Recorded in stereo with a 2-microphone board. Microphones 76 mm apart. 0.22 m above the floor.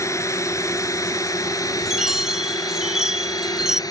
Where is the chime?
5° right (ahead or behind).